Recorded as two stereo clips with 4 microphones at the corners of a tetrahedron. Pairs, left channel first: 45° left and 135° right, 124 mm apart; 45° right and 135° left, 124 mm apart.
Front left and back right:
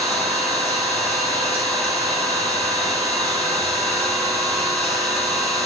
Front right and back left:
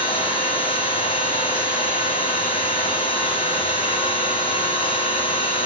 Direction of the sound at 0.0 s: 30° right.